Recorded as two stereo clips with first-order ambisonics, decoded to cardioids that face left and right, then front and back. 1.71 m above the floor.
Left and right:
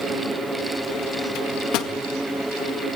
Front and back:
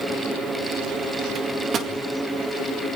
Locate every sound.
1.4 s a microwave: 120° left, 2 m